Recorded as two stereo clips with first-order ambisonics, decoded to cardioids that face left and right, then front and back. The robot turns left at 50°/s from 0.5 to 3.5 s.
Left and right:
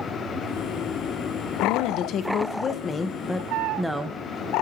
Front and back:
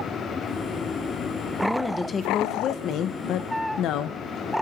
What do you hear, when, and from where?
1.6 s a woman speaking: 90° left, 0.7 m; by 4.2 s 5° right, 0.7 m